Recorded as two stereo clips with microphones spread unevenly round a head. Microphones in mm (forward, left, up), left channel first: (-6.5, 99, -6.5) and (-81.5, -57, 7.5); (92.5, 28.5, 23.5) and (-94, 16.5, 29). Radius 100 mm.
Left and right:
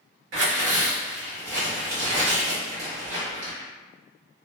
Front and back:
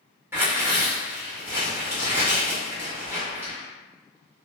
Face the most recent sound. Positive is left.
turn(degrees=-100)